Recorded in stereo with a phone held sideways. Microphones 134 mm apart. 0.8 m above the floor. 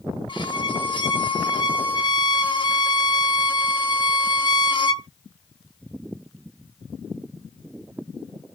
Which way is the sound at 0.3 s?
35° left (ahead or behind).